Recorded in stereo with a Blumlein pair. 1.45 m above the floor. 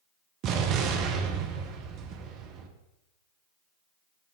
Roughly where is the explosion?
Ahead right.